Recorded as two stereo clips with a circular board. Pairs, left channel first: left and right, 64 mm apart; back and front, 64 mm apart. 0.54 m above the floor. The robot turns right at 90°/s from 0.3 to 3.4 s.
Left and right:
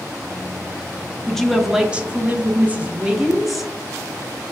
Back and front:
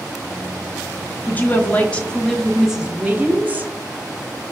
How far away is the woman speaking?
About 0.6 m.